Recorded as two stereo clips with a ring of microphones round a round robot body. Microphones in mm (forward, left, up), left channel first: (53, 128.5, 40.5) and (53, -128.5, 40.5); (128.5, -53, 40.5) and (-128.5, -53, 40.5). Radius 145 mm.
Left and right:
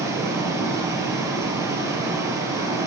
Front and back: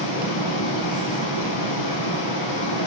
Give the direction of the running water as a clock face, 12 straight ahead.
12 o'clock.